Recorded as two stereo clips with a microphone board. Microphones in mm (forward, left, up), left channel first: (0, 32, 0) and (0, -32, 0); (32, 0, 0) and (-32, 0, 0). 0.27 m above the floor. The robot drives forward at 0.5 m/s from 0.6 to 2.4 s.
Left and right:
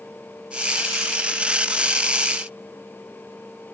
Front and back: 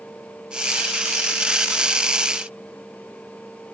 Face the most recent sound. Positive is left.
No sound to turn to.